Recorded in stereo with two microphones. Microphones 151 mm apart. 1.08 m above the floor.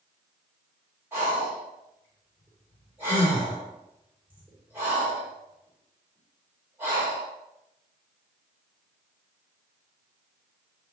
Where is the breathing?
15° right (ahead or behind), 3.5 m.